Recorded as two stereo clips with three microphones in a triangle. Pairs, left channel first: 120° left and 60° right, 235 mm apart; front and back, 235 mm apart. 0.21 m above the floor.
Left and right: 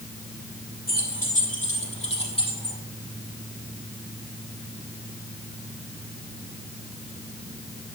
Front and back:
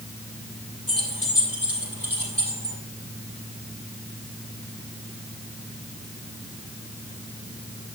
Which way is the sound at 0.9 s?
170° left.